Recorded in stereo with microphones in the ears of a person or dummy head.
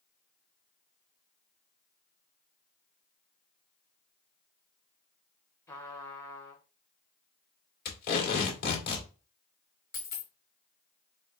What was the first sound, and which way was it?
A trumpet, 10° left (ahead or behind).